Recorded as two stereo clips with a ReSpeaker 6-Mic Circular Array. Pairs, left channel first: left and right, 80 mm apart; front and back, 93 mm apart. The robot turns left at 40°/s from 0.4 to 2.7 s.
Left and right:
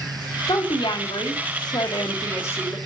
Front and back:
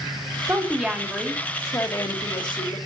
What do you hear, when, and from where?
0.5 s a woman speaking: 110° left, 2.5 m; by 2.8 s 20° left, 2.5 m